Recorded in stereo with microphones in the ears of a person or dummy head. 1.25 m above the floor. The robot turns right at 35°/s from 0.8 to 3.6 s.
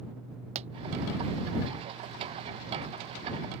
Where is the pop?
35° right (ahead or behind).